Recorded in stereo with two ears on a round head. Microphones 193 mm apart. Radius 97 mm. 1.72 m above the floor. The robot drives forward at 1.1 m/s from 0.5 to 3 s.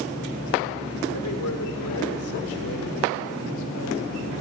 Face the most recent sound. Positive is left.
turn(degrees=70)  # may be behind; listen again after turning